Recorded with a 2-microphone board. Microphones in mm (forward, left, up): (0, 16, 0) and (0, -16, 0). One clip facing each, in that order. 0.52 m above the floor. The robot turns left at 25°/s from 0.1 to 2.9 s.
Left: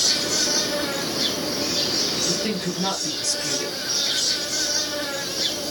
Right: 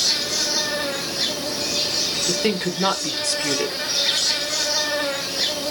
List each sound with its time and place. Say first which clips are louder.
0.0 s an insect: even; 25° right, 4 m; by 5.7 s 95° right, 4 m
2.3 s a woman speaking: right 3 dB; 55° right (ahead or behind), 1.4 m; by 3.8 s 45° right (ahead or behind), 1.4 m